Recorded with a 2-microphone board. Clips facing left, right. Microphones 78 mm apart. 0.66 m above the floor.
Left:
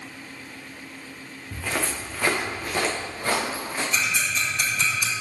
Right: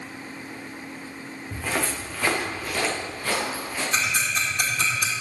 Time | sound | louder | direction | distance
1.5 | footsteps | right 1 dB | 15° right (ahead or behind) | 2.5 m
3.9 | ticking | right 2 dB | 50° right (ahead or behind) | 2 m